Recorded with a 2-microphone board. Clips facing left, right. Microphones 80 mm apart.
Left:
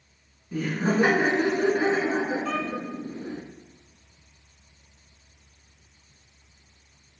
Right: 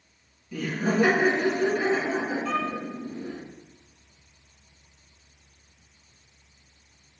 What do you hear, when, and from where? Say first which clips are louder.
0.5 s laughter: left 1 dB; 30° left (ahead or behind), 1.2 m
2.5 s a violin: right 1 dB; centre (ahead or behind), 1.3 m